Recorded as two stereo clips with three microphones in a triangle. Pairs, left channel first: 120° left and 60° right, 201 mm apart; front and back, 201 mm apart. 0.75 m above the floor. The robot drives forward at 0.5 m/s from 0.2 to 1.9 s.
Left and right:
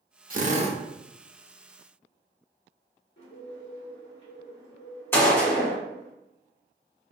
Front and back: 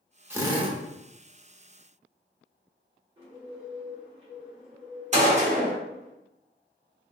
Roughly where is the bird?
Behind left.